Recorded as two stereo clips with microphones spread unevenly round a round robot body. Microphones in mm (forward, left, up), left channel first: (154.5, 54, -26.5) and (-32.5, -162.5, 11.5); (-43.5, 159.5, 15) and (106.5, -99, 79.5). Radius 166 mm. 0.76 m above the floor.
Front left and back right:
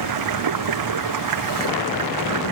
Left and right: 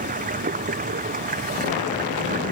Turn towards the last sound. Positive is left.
turn(degrees=-125)